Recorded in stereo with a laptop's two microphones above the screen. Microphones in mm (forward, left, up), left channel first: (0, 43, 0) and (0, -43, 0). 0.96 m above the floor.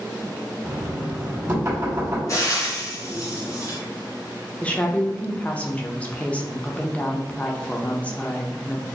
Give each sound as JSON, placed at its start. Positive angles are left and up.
{"t": 0.6, "sound": "knocking", "side_deg": -35, "distance_m": 1.6}
{"t": 2.3, "sound": "frying", "side_deg": 45, "distance_m": 1.0}
{"t": 4.6, "sound": "a woman speaking", "side_deg": 15, "distance_m": 0.8}